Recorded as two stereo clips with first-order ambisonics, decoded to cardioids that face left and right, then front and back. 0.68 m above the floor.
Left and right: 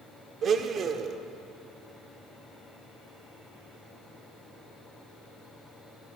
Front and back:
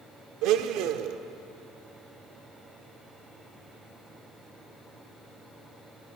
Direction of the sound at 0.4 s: 150° right.